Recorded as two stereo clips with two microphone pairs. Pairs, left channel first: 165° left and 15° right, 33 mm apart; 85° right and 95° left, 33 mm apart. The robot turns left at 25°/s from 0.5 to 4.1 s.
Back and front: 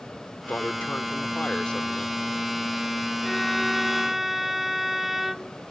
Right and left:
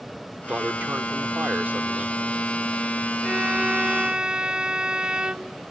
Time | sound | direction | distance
0.5 | a man speaking | 135° left | ?
3.2 | a violin | 85° left | ?